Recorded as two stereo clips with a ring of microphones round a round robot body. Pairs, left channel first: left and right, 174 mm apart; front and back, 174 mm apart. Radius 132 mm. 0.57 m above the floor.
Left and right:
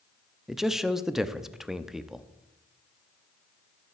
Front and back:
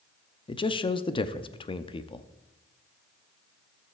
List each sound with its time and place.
0.5 s a man speaking: 5° right, 0.8 m